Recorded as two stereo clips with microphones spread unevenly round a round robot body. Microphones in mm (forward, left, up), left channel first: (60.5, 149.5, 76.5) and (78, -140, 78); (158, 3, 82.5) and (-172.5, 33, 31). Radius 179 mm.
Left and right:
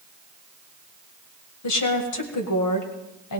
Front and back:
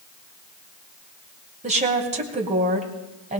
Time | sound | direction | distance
1.6 | a woman speaking | 110° left | 2.0 m